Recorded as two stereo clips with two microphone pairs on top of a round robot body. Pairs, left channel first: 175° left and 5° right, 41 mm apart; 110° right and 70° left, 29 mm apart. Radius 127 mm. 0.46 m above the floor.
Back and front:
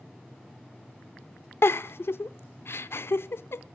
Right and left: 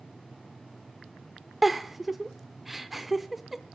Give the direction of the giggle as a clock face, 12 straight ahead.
7 o'clock.